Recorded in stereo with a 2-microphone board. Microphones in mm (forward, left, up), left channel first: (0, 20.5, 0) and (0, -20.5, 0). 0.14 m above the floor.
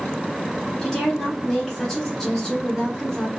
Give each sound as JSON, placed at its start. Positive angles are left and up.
{"t": 0.8, "sound": "a woman speaking", "side_deg": 15, "distance_m": 1.4}